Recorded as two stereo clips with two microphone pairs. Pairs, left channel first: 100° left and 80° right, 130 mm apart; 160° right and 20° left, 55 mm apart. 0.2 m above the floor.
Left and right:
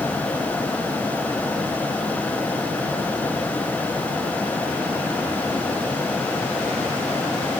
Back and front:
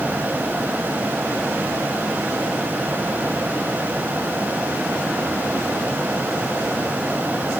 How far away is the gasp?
I don't hear a gasp.